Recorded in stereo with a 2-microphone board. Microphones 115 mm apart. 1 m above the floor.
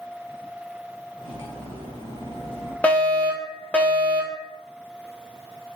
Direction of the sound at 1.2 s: 50° left (ahead or behind).